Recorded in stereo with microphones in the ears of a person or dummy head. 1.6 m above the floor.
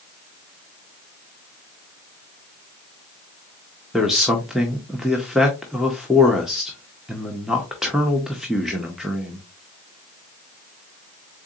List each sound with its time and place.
3.9 s a man speaking: centre (ahead or behind), 0.5 m